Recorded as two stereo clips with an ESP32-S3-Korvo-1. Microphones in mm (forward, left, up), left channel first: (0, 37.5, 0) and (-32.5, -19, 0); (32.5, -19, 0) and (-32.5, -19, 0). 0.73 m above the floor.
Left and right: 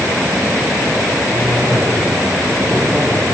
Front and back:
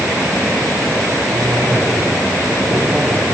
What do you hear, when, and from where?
1.3 s a cough: 150° left, 3 m